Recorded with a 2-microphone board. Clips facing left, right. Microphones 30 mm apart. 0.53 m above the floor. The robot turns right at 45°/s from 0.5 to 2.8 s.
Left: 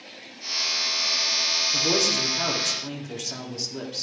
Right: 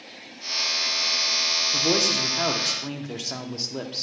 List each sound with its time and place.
1.7 s a man speaking: 10° right (ahead or behind), 1.0 m; by 4.0 s 20° right (ahead or behind), 1.0 m